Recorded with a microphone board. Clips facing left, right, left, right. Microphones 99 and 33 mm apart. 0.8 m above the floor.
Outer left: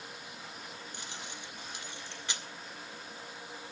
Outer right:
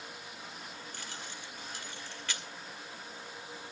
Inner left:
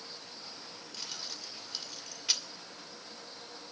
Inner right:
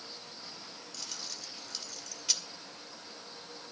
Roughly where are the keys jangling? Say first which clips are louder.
Even, inner left 1 dB; centre.